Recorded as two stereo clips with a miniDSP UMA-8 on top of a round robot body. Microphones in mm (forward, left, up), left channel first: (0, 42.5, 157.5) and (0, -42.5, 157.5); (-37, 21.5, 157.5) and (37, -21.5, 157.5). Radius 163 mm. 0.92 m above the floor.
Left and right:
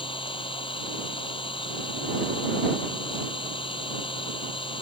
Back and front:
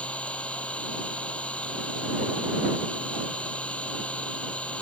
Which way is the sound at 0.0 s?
75° left.